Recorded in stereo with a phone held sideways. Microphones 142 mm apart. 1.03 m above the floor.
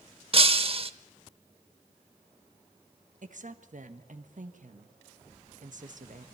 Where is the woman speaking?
65° right (ahead or behind), 1.5 m.